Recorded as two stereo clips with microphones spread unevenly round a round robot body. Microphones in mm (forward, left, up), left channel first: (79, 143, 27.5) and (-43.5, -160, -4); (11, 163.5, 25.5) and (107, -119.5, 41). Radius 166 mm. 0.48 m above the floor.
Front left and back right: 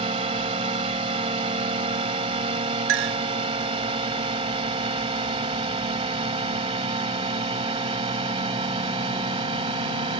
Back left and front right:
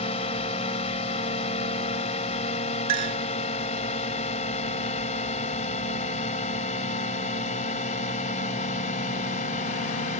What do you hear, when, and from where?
0.0 s a drone: 175° left
2.9 s a clink: 110° right